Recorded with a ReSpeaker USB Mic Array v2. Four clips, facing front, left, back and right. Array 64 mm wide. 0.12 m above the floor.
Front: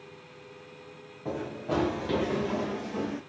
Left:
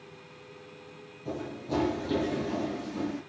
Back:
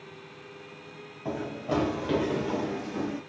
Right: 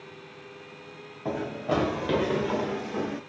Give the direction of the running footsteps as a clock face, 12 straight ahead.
3 o'clock.